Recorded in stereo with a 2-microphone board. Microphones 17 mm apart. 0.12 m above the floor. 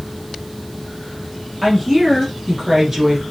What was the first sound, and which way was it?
A woman speaking, 20° right (ahead or behind).